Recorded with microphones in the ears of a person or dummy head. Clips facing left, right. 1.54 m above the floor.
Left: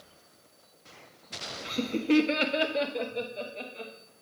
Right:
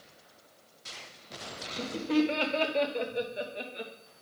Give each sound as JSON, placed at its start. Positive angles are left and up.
{"t": 1.6, "sound": "laughter", "side_deg": 55, "distance_m": 0.8}